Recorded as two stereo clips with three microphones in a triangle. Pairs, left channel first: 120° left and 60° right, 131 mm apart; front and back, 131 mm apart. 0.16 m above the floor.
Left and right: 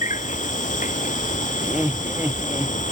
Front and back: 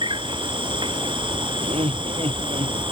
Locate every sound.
0.0 s an insect: 130° left
1.6 s laughter: 135° right